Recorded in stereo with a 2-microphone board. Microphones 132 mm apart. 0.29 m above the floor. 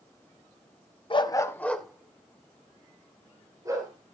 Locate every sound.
1.1 s a dog barking: 40° left (ahead or behind), 0.7 m; by 3.9 s 25° right (ahead or behind), 2.5 m